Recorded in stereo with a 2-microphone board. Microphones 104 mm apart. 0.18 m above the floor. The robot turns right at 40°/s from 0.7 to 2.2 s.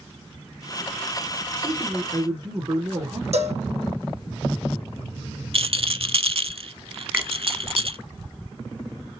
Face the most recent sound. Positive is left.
turn(degrees=-15)  # may be behind; listen again after turning